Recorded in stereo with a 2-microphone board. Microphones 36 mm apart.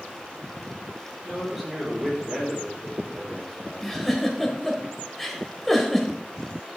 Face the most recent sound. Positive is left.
turn(degrees=10)  # may be behind; listen again after turning